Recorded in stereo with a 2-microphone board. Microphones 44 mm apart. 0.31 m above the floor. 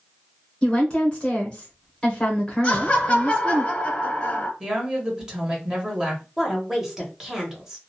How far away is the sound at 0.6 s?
About 0.8 m.